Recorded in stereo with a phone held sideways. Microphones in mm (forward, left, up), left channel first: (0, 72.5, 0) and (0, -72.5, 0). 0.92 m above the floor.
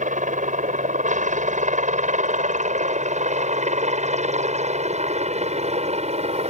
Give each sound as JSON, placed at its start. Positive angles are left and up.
{"t": 0.0, "sound": "a helicopter", "side_deg": -60}